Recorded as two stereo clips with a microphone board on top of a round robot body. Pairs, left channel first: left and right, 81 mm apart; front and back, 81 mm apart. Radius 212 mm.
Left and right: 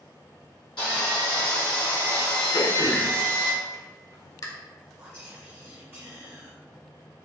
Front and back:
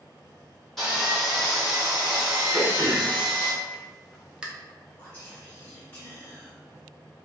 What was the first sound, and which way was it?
Sawing, 90° left.